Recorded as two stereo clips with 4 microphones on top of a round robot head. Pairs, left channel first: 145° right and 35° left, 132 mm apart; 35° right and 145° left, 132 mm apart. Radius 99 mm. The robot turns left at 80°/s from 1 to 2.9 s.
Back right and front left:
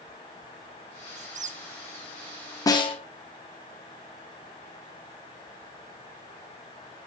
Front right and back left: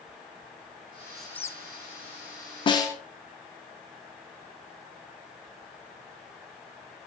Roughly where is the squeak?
Ahead left.